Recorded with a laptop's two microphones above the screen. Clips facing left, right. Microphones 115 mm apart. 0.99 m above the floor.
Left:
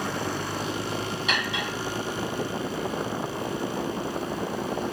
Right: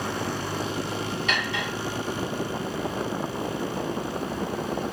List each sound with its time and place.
1.3 s cutlery clinking: 10° left (ahead or behind), 2.5 m